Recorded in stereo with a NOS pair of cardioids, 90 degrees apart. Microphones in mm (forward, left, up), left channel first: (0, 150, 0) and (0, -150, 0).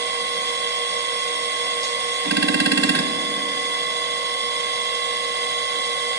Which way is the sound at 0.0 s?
35° right.